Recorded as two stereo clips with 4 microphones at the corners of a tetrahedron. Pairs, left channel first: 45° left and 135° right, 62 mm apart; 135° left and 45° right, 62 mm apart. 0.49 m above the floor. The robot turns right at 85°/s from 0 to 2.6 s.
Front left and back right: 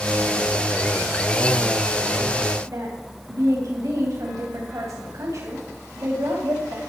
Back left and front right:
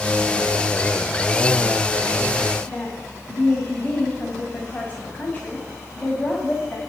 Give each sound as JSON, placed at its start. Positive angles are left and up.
{"t": 2.7, "sound": "a woman speaking", "azimuth_deg": -165, "distance_m": 2.5}